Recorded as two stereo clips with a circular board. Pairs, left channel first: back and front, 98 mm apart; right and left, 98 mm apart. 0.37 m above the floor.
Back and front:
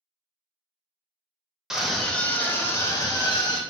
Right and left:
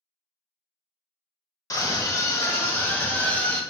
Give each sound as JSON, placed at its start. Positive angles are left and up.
{"t": 1.7, "sound": "a scream", "azimuth_deg": -80, "distance_m": 0.9}